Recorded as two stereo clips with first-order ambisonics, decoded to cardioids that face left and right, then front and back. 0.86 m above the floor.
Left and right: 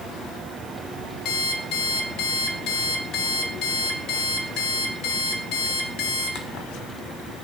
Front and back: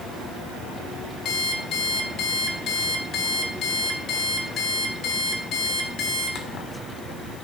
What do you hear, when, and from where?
1.2 s an alarm clock: 50° left, 1.6 m